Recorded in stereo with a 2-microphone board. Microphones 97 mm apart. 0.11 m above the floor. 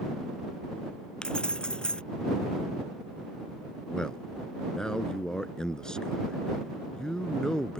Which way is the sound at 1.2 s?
10° left (ahead or behind).